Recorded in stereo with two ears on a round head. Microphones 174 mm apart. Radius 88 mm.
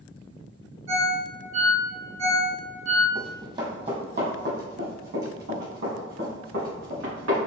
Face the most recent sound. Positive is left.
turn(degrees=-70)  # may be behind; listen again after turning